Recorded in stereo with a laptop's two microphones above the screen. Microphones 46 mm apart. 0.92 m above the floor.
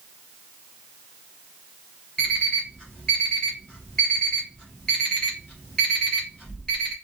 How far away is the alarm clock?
About 2 m.